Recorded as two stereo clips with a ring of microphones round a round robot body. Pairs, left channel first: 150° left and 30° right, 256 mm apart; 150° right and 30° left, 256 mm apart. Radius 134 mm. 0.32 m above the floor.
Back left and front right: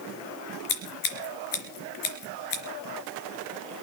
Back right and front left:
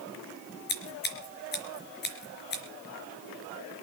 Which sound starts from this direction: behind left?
Scissors, at 0.7 s.